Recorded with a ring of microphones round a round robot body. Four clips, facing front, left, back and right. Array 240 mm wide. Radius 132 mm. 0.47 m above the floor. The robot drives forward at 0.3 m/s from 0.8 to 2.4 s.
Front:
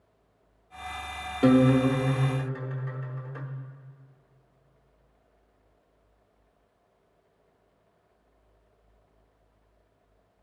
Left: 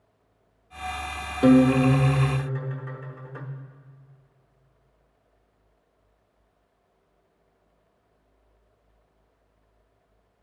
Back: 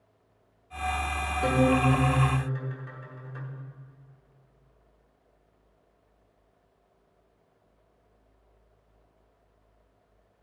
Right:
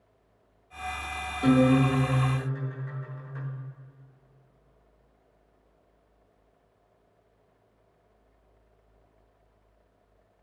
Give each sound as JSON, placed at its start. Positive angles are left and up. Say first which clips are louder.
{"t": 1.4, "sound": "a guitar", "louder": "left 4 dB, front 4 dB", "azimuth_deg": 60, "distance_m": 1.2}